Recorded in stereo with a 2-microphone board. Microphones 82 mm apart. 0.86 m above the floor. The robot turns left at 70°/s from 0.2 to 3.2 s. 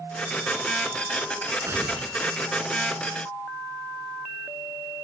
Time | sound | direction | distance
1.6 | tearing paper | 150° right | 5 m